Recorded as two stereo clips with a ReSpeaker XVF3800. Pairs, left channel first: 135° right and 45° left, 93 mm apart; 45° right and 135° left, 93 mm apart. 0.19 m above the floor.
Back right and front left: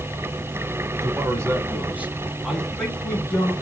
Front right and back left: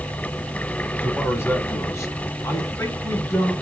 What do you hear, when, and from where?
1.0 s a man speaking: 10° left, 2 m; by 3.5 s 80° right, 1.9 m